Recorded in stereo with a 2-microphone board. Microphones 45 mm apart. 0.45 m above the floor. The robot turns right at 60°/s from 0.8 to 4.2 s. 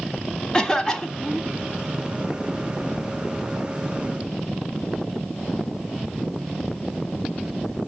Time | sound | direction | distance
0.5 | a cough | 20° left (ahead or behind) | 0.8 m